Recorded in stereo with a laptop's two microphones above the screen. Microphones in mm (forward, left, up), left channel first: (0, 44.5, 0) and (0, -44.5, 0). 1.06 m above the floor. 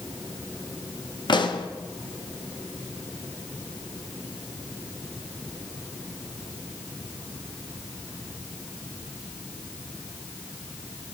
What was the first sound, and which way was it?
A pop, 60° left (ahead or behind).